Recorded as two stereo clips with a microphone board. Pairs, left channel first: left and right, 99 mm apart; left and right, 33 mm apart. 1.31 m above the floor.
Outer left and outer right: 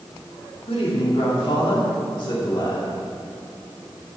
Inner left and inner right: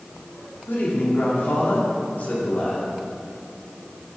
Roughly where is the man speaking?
Left.